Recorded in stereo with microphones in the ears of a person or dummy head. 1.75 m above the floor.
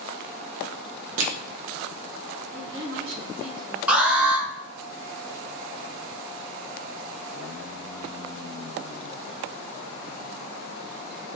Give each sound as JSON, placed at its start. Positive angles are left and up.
{"t": 1.2, "sound": "crushing", "side_deg": -80, "distance_m": 0.8}
{"t": 2.5, "sound": "a woman speaking", "side_deg": -80, "distance_m": 2.0}
{"t": 3.9, "sound": "an alarm", "side_deg": -5, "distance_m": 1.3}